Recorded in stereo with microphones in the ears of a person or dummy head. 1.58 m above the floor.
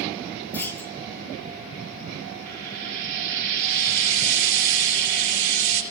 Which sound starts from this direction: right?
Frying, at 2.5 s.